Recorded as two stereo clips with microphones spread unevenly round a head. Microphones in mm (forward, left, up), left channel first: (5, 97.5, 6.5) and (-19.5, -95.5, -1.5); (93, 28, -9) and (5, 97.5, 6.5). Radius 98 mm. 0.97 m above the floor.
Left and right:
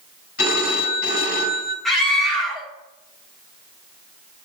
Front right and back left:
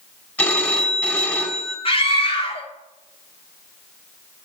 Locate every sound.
0.4 s a phone ringing: 35° left, 4 m
1.9 s a scream: 5° right, 2.5 m